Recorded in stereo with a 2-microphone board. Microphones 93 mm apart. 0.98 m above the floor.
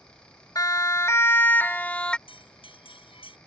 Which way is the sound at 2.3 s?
70° left (ahead or behind).